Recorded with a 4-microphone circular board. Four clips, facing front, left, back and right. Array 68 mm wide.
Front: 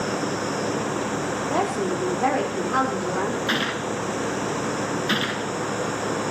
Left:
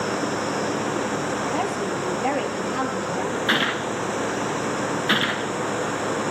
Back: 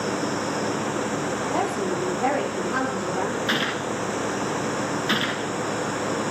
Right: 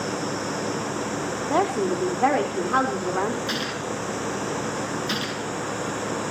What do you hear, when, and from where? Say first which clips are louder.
1.5 s a woman speaking: right 2 dB, front 2 dB; 75° right, 4.5 m
3.5 s a gunshot: left 5 dB, even; 90° left, 0.9 m